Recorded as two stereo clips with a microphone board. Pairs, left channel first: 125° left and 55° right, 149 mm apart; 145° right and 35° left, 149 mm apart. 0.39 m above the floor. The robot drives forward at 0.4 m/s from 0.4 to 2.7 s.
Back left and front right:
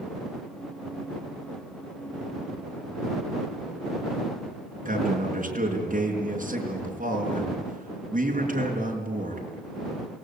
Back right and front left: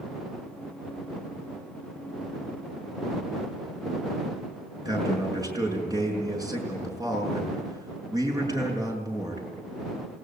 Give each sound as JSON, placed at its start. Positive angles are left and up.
{"t": 4.8, "sound": "a man speaking", "azimuth_deg": -30, "distance_m": 6.0}